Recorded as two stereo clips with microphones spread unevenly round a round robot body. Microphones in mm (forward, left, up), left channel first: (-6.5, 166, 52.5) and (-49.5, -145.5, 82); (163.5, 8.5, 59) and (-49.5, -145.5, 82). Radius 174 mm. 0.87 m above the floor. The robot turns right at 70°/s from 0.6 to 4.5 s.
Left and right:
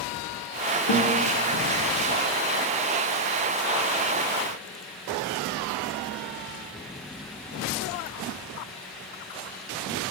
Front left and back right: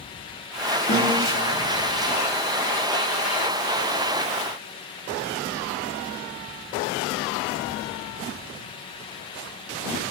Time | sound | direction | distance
0.9 | a guitar | 90° left | 0.8 m